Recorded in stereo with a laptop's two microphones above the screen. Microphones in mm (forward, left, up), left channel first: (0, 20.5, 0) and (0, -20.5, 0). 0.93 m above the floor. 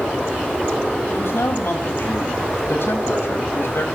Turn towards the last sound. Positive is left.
turn(degrees=70)  # may be behind; listen again after turning